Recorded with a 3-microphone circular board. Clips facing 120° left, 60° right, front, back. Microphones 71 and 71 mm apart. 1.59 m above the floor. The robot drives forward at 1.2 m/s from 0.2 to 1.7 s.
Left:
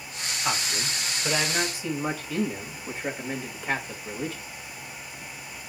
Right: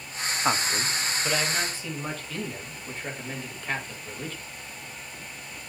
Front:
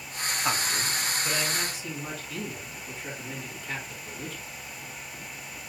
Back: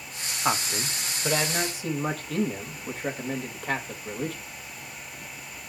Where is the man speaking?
110° right, 0.7 m; by 4.4 s 165° right, 1.8 m.